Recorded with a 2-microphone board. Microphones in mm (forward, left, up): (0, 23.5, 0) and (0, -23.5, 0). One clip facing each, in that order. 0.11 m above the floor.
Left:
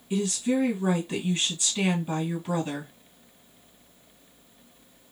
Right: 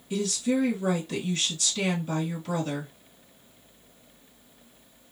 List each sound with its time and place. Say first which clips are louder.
0.1 s a woman speaking: left 1 dB; 20° left (ahead or behind), 2.0 m